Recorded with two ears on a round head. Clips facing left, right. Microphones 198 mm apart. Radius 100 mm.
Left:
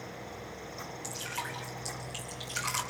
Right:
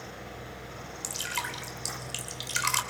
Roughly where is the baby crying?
No baby crying in this recording.